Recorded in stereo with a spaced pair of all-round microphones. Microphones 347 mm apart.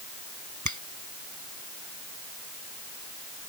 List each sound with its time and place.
0.7 s a finger snap: 55° right (ahead or behind)